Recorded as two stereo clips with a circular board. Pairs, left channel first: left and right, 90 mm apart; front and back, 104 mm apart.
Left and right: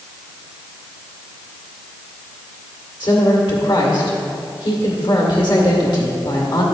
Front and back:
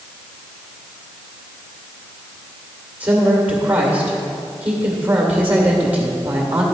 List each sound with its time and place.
3.0 s a woman speaking: 110° left, 2 m